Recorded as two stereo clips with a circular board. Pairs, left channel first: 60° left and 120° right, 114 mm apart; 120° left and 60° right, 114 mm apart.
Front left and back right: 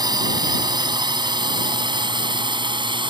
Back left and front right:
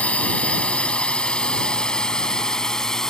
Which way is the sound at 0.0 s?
165° right.